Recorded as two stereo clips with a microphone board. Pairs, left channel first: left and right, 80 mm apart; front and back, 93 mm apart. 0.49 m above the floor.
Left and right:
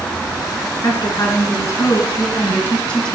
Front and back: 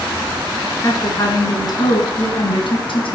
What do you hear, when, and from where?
0.8 s a woman speaking: 45° left, 5.5 m; by 3.1 s 5° left, 3.5 m